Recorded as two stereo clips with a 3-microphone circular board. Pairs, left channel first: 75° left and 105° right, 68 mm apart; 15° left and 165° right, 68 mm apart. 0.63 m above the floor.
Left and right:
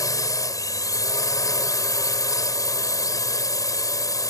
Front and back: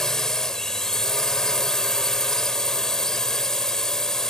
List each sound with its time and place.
0.0 s a drone: 100° left